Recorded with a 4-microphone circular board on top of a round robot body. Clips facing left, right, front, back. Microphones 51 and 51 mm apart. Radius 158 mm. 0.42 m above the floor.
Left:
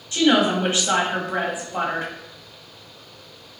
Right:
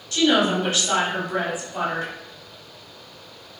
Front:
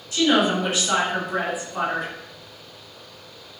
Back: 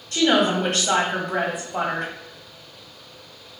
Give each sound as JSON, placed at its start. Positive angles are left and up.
{"t": 0.1, "sound": "a woman speaking", "azimuth_deg": 155, "distance_m": 1.5}